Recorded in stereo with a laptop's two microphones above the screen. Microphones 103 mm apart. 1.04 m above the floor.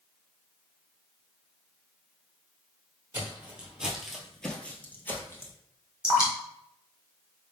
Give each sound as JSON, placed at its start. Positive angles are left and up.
{"t": 3.1, "sound": "footsteps", "side_deg": -15, "distance_m": 1.2}
{"t": 6.0, "sound": "dripping", "side_deg": -10, "distance_m": 1.2}